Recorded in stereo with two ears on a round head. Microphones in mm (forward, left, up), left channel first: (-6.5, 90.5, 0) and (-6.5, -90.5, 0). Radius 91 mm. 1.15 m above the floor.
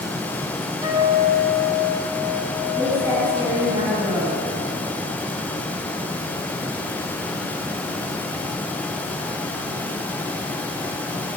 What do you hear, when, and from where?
0.8 s a guitar: 20° right (ahead or behind), 7 m
2.8 s a woman speaking: 15° right (ahead or behind), 6.5 m